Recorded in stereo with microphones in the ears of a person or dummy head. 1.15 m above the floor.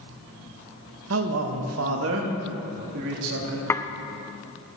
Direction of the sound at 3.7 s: 15° left (ahead or behind).